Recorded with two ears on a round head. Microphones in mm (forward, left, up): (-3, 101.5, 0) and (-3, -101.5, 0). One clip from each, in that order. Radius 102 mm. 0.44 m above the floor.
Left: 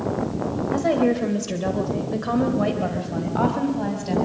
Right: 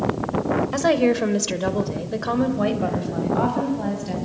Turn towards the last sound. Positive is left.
turn(degrees=10)  # may be behind; listen again after turning